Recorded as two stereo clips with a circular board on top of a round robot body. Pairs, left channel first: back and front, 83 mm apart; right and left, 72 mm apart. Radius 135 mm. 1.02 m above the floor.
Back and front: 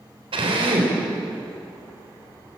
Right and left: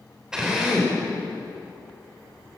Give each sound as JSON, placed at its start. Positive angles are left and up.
{"t": 0.3, "sound": "a drill", "azimuth_deg": 10, "distance_m": 3.5}